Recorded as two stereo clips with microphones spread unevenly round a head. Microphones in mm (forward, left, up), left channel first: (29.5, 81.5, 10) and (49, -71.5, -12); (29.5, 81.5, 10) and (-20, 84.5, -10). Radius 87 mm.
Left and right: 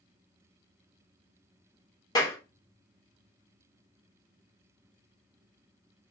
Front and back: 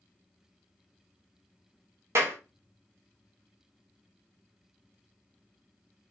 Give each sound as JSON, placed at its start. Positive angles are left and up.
{"t": 2.1, "sound": "a clap", "azimuth_deg": 170, "distance_m": 1.2}